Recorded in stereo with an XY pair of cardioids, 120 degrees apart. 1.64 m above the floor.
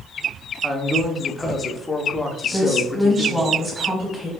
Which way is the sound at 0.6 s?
10° left.